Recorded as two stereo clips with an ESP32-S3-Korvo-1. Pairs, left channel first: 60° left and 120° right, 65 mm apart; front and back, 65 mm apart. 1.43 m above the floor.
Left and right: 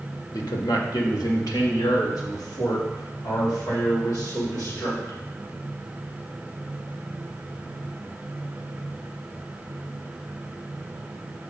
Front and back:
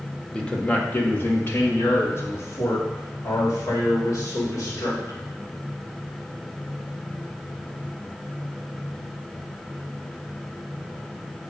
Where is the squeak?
No squeak in this recording.